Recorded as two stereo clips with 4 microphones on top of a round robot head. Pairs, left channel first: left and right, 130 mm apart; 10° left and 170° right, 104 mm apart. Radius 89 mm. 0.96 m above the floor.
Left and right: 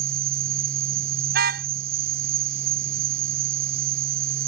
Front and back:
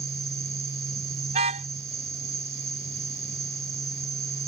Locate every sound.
0.0 s an insect: 100° right
1.3 s a car horn: 120° right